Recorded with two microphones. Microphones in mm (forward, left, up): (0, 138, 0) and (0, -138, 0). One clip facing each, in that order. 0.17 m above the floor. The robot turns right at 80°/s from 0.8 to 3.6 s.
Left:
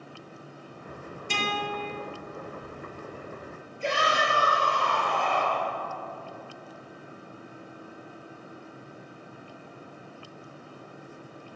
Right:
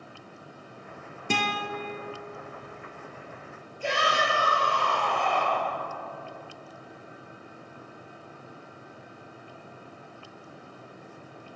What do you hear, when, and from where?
1.3 s a guitar: 65° right, 1.0 m; by 1.9 s 15° right, 1.0 m
3.8 s a shout: 20° left (ahead or behind), 3 m